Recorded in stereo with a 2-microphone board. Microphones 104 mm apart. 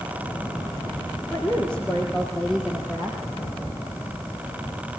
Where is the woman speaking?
10° left (ahead or behind), 6.5 m; by 3.2 s 5° right (ahead or behind), 6.5 m.